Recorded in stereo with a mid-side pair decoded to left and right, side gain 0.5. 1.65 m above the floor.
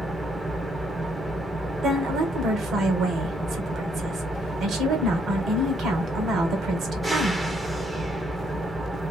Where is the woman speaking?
60° right, 1.6 m.